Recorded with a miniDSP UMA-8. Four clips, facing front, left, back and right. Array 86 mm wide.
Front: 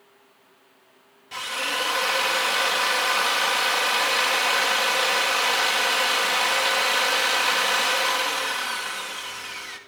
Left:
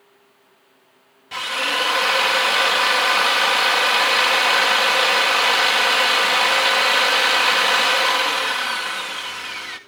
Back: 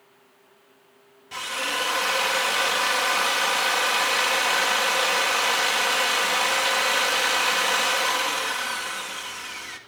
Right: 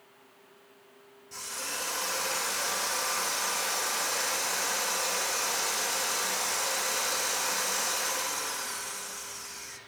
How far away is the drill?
About 1.9 m.